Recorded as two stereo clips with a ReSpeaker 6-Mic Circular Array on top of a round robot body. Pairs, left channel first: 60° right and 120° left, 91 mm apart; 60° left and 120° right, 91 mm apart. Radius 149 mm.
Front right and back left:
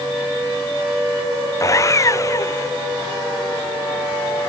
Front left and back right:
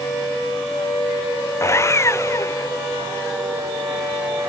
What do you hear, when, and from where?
1.6 s sawing: straight ahead